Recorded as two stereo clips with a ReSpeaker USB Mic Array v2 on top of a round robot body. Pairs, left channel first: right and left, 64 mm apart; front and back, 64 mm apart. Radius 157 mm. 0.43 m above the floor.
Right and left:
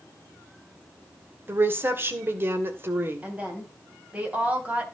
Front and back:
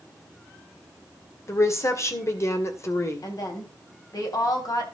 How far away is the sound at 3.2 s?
About 3.5 m.